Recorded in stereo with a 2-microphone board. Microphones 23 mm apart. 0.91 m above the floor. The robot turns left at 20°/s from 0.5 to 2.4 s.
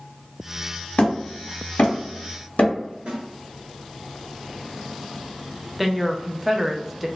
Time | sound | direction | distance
1.0 | hammering | 65° left (ahead or behind) | 1.3 m
3.1 | a snare drum | 50° right (ahead or behind) | 1.4 m
5.8 | a woman speaking | 5° right (ahead or behind) | 0.6 m